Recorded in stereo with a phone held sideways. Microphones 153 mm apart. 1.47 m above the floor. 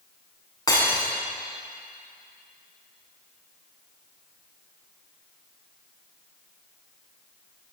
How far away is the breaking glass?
About 8.5 m.